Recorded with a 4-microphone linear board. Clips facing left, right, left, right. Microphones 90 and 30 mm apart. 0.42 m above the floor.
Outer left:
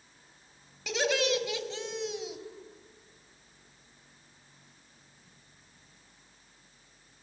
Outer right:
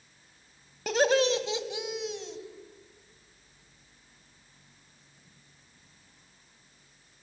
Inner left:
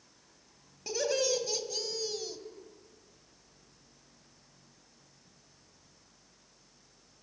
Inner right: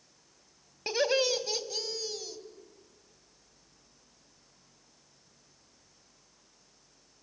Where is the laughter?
45° right (ahead or behind), 2.5 m; by 2.4 s 10° left (ahead or behind), 2.5 m.